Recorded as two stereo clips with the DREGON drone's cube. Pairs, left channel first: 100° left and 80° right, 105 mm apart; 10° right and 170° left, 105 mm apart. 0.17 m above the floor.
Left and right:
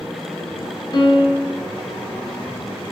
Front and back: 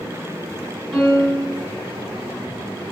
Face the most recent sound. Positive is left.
turn(degrees=80)